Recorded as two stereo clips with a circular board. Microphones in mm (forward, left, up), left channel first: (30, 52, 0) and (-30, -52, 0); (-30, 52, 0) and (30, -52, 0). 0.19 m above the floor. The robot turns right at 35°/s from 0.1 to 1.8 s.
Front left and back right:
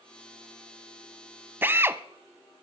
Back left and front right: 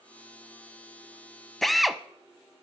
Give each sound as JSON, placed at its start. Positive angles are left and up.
{"t": 1.6, "sound": "a drill", "azimuth_deg": -155, "distance_m": 0.6}